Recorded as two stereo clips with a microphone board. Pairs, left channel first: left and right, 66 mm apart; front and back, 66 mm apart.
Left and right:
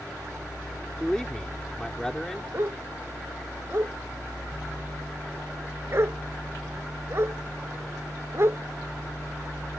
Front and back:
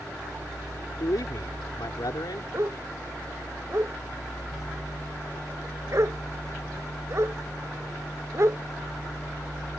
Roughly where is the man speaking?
Ahead.